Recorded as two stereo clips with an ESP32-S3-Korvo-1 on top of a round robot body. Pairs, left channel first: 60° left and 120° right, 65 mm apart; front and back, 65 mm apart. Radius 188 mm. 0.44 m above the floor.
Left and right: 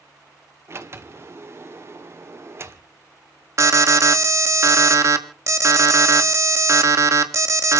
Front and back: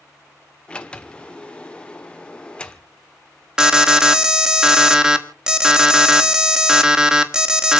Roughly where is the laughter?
I don't hear laughter.